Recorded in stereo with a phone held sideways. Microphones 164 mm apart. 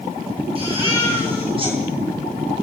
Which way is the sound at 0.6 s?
35° right (ahead or behind).